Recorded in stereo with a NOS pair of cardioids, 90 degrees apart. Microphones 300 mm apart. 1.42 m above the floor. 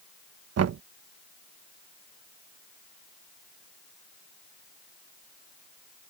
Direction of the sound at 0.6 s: 55° right.